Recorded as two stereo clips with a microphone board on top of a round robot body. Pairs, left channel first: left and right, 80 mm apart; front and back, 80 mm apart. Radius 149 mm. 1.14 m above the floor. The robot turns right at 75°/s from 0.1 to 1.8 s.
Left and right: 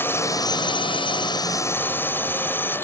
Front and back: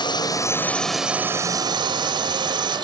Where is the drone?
25° left; by 2.9 s 155° left.